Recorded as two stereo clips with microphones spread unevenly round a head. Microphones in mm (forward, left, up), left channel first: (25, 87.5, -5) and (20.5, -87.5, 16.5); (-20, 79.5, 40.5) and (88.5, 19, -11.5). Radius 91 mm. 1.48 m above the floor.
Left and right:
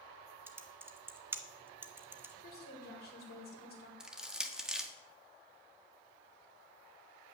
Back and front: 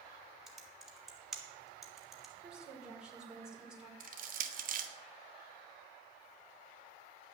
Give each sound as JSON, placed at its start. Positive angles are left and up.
{"t": 0.5, "sound": "typing on a keyboard", "azimuth_deg": -150, "distance_m": 0.9}
{"t": 2.4, "sound": "a woman speaking", "azimuth_deg": 55, "distance_m": 5.0}
{"t": 4.0, "sound": "crushing", "azimuth_deg": -10, "distance_m": 1.5}